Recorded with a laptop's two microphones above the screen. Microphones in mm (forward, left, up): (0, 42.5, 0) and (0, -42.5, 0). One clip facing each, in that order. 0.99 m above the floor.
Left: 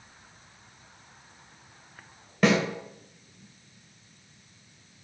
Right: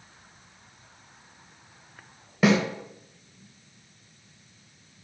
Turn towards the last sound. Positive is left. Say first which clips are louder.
# right 1 dB
turn(degrees=-5)  # may be behind; listen again after turning